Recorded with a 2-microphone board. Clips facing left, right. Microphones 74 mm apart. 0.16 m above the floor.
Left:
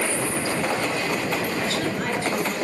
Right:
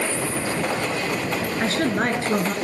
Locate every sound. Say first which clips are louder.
1.6 s a woman speaking: right 4 dB; 45° right (ahead or behind), 2.5 m